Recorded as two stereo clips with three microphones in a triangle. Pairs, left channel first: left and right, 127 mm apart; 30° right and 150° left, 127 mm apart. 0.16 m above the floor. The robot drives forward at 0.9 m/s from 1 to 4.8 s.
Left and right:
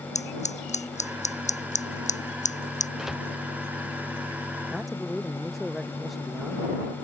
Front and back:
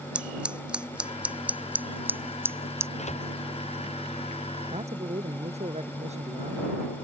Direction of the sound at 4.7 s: Straight behind.